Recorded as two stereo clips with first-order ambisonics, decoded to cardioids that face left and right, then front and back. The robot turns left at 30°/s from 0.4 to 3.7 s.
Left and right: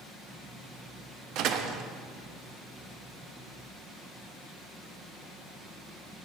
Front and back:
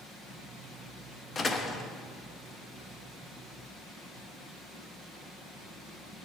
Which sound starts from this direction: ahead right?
A door slam, at 1.4 s.